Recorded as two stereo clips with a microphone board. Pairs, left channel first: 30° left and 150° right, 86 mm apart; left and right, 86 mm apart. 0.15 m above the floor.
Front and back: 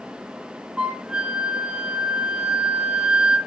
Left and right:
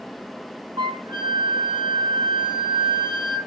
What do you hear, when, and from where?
0.8 s a flute: 70° right, 1.0 m